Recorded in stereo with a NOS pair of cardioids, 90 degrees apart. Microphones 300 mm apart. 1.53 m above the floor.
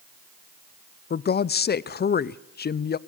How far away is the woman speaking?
About 0.6 m.